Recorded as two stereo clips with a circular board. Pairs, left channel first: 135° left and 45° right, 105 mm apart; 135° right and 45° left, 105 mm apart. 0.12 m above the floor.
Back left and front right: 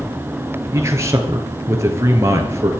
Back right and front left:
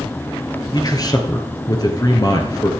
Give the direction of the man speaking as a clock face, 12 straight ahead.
3 o'clock.